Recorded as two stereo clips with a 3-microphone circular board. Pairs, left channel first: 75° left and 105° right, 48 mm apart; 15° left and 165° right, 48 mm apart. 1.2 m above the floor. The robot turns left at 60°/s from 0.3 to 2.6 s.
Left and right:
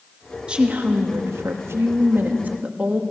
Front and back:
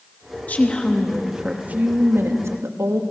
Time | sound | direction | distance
0.5 | a woman speaking | 35° right | 2 m